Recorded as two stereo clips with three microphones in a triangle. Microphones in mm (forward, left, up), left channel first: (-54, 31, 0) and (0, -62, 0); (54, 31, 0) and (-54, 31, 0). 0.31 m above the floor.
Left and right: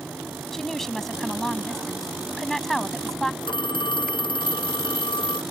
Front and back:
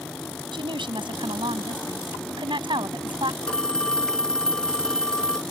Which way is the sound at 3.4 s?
85° left.